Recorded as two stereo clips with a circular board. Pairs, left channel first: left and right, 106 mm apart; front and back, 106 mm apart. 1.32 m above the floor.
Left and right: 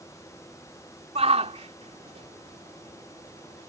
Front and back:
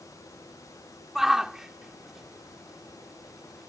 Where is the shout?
95° right.